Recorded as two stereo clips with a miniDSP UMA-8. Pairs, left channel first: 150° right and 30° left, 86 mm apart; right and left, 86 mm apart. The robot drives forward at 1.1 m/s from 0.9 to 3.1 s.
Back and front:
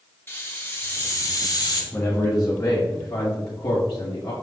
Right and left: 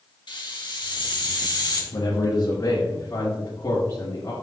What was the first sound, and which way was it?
A hiss, 90° right.